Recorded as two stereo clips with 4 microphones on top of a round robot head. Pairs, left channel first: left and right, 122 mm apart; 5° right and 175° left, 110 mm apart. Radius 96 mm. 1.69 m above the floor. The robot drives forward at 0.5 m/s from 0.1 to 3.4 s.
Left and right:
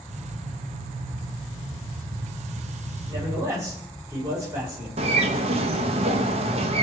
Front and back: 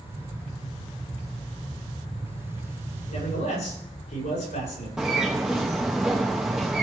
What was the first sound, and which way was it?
A man speaking, 20° right.